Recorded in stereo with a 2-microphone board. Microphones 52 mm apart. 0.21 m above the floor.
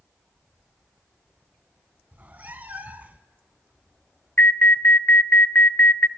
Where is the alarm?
40° left (ahead or behind), 1.0 m.